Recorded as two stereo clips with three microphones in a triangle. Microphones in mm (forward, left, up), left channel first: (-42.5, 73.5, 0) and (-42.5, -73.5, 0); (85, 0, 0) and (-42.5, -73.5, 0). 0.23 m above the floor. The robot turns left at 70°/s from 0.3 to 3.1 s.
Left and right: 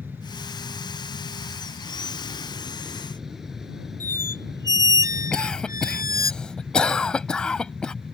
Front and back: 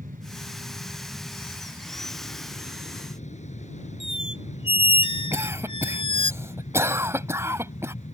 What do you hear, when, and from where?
0.0 s an aircraft: 165° right; by 8.1 s 5° right
4.0 s a squeak: 25° right
5.3 s a cough: 165° left